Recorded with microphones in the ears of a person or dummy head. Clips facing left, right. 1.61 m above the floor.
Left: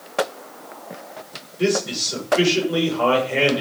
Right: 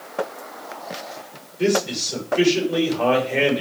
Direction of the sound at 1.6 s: 5° left (ahead or behind).